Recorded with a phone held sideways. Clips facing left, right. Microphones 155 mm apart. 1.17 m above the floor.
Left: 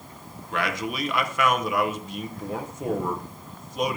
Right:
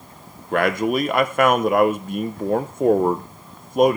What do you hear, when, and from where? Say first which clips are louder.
0.5 s a man speaking: right 9 dB; 55° right (ahead or behind), 0.7 m